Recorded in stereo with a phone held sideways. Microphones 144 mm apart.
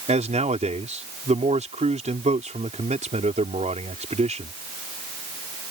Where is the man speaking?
50° right (ahead or behind).